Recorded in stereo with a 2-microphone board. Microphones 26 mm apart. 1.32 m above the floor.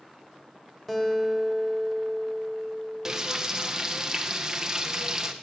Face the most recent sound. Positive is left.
turn(degrees=-20)  # may be behind; listen again after turning